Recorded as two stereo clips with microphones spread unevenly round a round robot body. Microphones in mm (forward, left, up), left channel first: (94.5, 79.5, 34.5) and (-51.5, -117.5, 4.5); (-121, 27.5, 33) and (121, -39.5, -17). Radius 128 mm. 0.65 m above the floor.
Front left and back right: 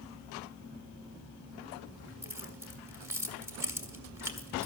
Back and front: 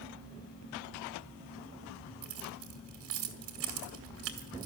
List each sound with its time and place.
2.2 s keys jangling: 45° right, 2 m